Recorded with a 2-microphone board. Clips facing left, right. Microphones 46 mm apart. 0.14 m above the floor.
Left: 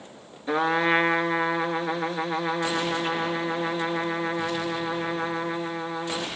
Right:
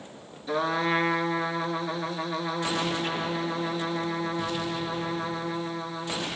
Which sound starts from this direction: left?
A trumpet, at 0.5 s.